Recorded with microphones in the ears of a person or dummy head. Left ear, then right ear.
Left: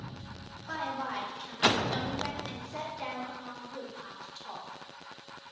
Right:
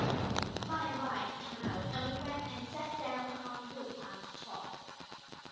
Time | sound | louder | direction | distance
0.7 | a woman speaking | left 6 dB | 75° left (ahead or behind) | 2 m